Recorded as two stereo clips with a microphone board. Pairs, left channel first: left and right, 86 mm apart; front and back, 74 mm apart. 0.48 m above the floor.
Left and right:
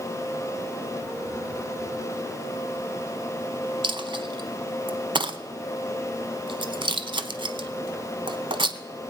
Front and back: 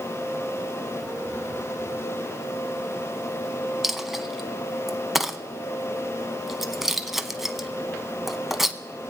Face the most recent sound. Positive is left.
turn(degrees=-95)